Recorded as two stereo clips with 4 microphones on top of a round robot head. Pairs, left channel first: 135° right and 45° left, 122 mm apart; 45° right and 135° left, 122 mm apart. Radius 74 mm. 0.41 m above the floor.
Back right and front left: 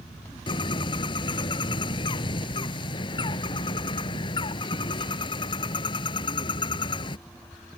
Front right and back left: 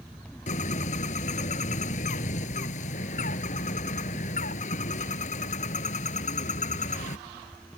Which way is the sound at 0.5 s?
80° right.